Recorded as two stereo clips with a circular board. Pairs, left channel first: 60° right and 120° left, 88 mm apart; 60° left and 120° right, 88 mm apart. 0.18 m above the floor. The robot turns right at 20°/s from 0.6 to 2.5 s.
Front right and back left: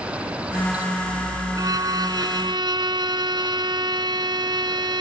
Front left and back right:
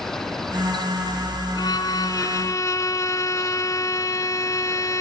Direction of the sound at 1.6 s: 85° left.